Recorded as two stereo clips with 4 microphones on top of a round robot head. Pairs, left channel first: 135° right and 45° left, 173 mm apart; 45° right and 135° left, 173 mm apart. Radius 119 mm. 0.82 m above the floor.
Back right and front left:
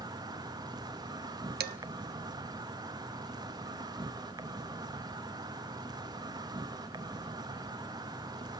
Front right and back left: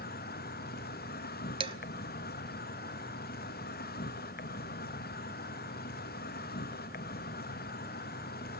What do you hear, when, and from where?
0.0 s an insect: 20° right, 0.9 m
1.6 s dishes clattering: 75° left, 1.1 m